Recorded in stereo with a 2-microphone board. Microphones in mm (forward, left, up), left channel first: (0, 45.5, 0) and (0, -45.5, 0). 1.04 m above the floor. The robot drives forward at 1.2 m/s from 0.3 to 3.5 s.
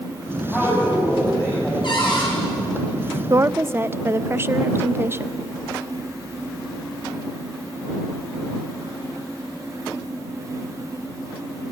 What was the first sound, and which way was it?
A man speaking, 20° left (ahead or behind).